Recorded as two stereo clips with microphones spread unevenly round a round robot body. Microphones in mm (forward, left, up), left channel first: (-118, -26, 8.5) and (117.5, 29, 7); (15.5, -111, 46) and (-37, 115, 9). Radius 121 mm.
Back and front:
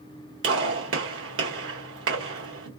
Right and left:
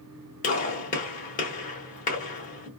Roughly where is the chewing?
I don't hear chewing.